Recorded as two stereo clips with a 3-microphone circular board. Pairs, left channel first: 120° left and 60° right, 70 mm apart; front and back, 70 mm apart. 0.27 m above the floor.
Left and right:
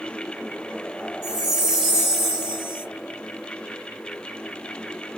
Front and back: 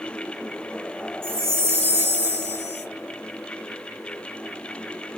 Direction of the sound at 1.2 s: 140° right.